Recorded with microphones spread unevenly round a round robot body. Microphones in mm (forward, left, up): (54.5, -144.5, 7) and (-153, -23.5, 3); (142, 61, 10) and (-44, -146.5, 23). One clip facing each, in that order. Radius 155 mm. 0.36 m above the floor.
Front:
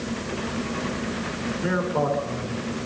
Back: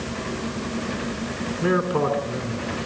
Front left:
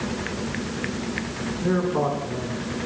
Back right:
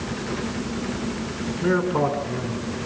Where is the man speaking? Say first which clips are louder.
Back 4 dB, back right 2 dB; 165° left, 4.5 m.